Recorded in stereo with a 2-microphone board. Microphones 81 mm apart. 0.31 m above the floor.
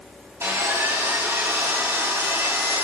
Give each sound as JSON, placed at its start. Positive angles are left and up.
{"t": 0.4, "sound": "sawing", "side_deg": -35, "distance_m": 2.5}